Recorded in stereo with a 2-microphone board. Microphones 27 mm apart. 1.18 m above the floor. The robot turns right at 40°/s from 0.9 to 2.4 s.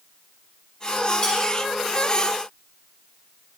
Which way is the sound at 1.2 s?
40° left (ahead or behind).